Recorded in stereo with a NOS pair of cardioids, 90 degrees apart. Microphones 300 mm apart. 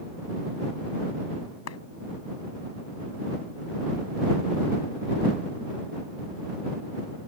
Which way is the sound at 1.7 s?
55° left.